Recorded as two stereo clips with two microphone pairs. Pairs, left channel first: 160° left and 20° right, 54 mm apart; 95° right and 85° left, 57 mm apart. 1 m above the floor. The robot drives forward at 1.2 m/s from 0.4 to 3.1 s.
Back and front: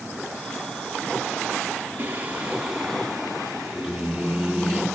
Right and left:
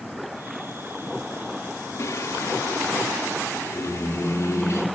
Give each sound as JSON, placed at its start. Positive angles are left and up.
{"t": 2.0, "sound": "singing", "azimuth_deg": -80, "distance_m": 2.5}